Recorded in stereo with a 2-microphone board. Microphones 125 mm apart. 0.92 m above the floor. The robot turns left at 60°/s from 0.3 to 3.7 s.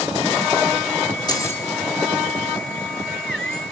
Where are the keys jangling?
35° left (ahead or behind), 2.0 m; by 1.6 s 15° left (ahead or behind), 2.0 m.